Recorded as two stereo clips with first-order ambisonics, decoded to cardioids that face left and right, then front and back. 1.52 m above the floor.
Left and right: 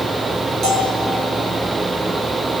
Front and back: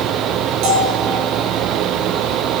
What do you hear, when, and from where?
0.6 s a bell: 155° right, 7 m